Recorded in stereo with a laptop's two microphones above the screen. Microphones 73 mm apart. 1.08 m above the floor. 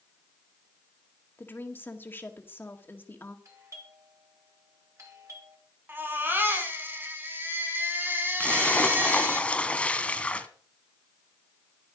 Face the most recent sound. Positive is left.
turn(degrees=15)  # may be behind; listen again after turning